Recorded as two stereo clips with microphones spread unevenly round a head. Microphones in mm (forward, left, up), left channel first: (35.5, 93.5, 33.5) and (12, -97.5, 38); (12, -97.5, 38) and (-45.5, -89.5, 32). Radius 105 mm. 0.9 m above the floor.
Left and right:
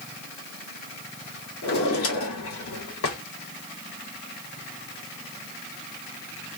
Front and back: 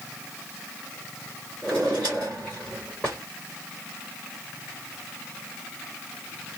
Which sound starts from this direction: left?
A drawer, at 1.6 s.